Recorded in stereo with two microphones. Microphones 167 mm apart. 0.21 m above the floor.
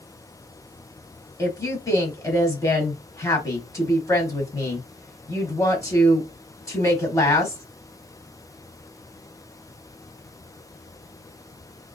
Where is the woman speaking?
20° left (ahead or behind), 1.1 m.